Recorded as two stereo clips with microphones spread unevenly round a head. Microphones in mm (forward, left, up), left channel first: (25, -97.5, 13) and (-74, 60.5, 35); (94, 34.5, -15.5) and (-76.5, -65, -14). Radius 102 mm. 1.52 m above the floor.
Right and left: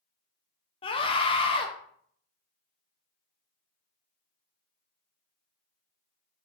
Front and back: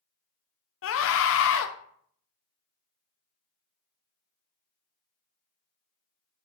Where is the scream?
10° left, 0.7 m.